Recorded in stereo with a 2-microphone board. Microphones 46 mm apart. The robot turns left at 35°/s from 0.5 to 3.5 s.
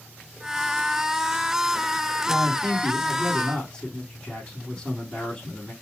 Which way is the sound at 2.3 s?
60° left.